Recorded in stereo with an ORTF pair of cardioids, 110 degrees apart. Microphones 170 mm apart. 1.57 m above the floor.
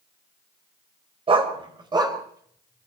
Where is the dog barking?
35° right, 3.5 m; by 2.9 s 15° right, 4.5 m.